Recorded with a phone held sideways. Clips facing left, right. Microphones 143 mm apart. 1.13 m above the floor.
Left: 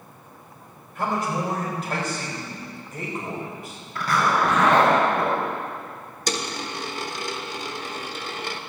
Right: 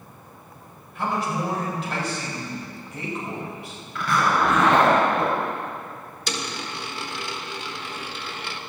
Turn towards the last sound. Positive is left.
turn(degrees=40)  # may be behind; listen again after turning